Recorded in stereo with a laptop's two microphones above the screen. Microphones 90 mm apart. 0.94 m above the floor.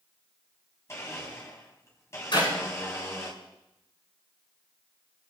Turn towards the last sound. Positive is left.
turn(degrees=55)  # may be behind; listen again after turning